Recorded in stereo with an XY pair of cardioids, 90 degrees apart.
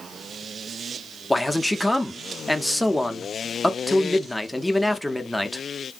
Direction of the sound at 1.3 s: 5° left.